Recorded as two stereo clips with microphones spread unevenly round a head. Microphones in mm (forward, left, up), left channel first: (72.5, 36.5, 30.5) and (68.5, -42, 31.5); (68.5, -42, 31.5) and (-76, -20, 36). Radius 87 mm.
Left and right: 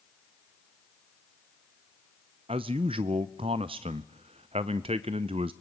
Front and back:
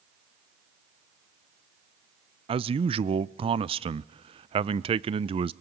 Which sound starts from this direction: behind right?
A man speaking, at 2.5 s.